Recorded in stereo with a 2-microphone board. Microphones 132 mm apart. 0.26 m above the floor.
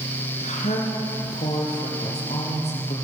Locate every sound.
0.4 s a woman speaking: 65° left (ahead or behind), 4 m; by 3.0 s 55° left (ahead or behind), 6 m